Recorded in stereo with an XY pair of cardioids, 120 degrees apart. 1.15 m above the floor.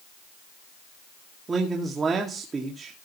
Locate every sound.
1.5 s a man speaking: 30° right, 2 m